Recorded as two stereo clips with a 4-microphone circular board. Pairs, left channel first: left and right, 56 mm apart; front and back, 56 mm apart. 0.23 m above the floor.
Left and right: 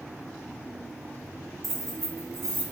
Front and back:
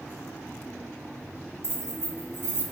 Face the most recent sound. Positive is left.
turn(degrees=-5)